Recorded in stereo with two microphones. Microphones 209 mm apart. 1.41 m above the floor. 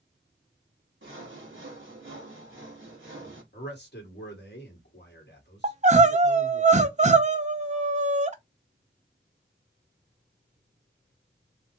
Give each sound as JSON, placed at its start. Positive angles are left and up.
{"t": 1.0, "sound": "sawing", "side_deg": -70, "distance_m": 1.6}
{"t": 3.5, "sound": "a man speaking", "side_deg": 55, "distance_m": 1.8}
{"t": 5.6, "sound": "crying", "side_deg": -35, "distance_m": 0.5}